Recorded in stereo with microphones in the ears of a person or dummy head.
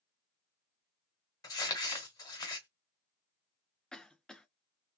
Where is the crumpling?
20° left (ahead or behind), 1.1 m.